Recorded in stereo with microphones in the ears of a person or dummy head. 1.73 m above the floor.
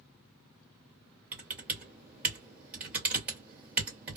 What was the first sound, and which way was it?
Typing on a keyboard, 10° right (ahead or behind).